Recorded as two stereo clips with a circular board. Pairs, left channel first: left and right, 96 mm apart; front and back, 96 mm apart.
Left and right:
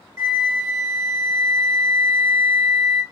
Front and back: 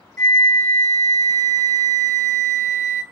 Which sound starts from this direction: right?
A flute, at 0.2 s.